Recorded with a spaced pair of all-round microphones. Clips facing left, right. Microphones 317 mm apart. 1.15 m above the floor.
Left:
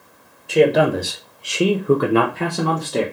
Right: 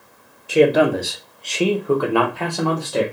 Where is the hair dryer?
I don't hear a hair dryer.